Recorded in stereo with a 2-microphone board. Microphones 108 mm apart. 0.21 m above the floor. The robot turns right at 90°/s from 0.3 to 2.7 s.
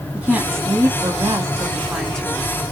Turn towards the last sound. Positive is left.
turn(degrees=60)